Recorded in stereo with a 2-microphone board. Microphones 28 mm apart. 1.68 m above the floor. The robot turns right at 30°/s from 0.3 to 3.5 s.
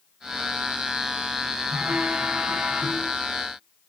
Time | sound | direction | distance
1.7 | a phone buzzing | 50° right | 3.5 m